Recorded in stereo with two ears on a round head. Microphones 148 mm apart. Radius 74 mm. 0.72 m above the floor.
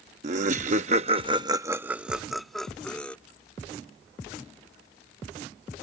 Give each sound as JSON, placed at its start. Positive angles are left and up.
{"t": 0.2, "sound": "laughter", "side_deg": -45}